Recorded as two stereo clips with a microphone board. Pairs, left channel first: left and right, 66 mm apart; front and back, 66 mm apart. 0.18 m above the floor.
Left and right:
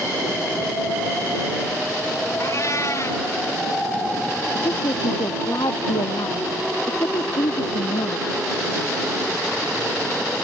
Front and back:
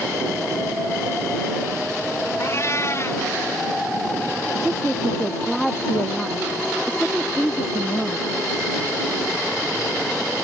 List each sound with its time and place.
2.4 s a cat meowing: 50° left
4.5 s a woman speaking: 90° left